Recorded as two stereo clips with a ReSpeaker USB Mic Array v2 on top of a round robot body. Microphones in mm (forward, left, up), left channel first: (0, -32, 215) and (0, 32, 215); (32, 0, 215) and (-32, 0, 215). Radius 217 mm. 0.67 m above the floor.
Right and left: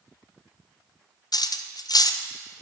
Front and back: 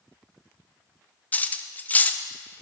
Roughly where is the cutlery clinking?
Ahead right.